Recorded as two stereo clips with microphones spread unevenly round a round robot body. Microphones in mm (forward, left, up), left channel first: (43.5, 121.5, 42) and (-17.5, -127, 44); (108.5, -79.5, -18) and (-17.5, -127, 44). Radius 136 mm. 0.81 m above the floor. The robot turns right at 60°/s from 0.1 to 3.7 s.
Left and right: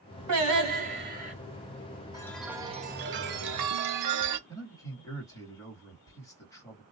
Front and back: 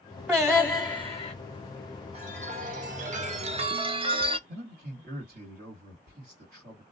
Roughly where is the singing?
Right.